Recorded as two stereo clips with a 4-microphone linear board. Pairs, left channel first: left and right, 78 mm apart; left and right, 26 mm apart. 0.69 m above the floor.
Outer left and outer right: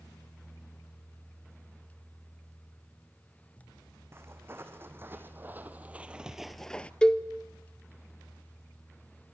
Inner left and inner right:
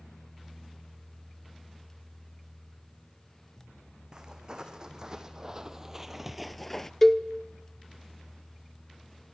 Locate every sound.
4.1 s footsteps: 30° right (ahead or behind), 2 m; by 6.9 s 15° left (ahead or behind), 0.7 m
7.0 s a cowbell: 10° left (ahead or behind), 0.9 m